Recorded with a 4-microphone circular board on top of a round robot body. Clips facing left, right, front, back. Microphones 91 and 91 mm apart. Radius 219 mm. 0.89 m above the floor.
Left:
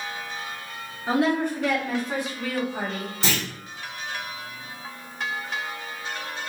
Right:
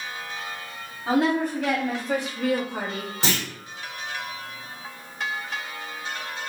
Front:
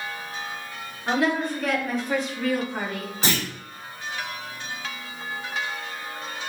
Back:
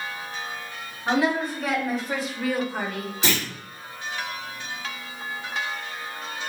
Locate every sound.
1.1 s a woman speaking: 95° right, 4 m
3.2 s a clunk: 55° right, 4 m